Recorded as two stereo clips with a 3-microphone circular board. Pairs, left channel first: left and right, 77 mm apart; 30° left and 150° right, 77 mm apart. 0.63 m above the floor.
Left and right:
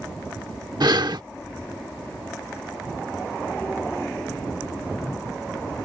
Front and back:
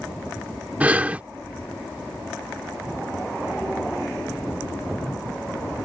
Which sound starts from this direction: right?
Breathing, at 0.8 s.